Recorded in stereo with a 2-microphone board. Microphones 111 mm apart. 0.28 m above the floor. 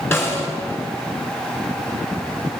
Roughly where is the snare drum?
Left.